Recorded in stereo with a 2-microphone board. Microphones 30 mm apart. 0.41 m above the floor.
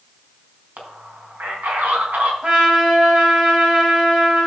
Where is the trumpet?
30° right (ahead or behind), 3 m.